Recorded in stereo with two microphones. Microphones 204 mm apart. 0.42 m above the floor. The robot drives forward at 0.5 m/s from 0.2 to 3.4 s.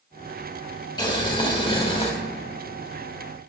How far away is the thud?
I don't hear a thud.